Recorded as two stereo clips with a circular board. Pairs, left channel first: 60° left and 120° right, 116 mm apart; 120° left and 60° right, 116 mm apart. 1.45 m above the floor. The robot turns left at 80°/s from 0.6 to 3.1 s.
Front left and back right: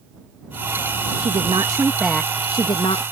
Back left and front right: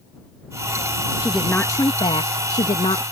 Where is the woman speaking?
135° right; by 3.0 s 80° left.